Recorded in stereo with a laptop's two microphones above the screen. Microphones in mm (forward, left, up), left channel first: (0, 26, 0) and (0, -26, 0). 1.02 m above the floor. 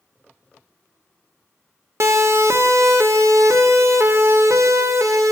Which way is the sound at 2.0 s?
60° right (ahead or behind).